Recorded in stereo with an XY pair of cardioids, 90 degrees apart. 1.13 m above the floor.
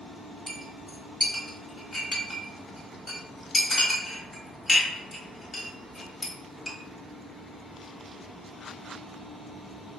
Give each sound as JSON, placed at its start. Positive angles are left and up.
{"t": 0.5, "sound": "a clink", "azimuth_deg": 30, "distance_m": 1.4}